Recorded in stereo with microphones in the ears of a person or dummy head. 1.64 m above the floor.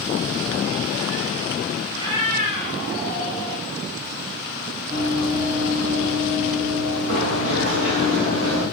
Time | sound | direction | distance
1.9 | a cat meowing | 20° right (ahead or behind) | 2 m
4.9 | running footsteps | 30° right (ahead or behind) | 3 m